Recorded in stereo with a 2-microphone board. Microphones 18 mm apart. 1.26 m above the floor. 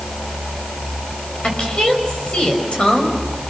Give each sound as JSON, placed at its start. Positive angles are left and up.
{"t": 1.4, "sound": "a woman speaking", "side_deg": 65, "distance_m": 6.0}